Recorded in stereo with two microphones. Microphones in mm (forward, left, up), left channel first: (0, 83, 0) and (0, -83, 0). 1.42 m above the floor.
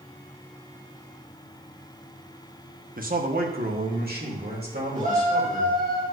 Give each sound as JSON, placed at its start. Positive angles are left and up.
{"t": 3.0, "sound": "a man speaking", "side_deg": -55, "distance_m": 1.1}
{"t": 5.0, "sound": "a shout", "side_deg": -50, "distance_m": 2.0}